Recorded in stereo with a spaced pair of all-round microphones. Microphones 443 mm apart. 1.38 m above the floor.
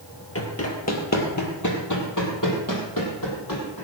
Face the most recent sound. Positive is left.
turn(degrees=50)  # may be behind; listen again after turning